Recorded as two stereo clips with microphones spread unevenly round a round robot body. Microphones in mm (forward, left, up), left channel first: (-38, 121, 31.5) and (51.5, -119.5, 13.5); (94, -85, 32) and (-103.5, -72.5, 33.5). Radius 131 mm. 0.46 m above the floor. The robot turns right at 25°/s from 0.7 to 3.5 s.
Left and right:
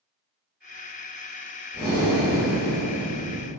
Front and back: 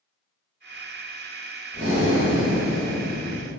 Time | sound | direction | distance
1.7 | breathing | 170° right | 2.0 m